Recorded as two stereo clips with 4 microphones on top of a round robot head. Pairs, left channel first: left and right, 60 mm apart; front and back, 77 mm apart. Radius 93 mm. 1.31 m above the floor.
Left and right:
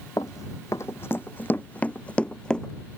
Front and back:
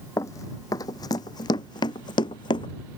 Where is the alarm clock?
I don't hear an alarm clock.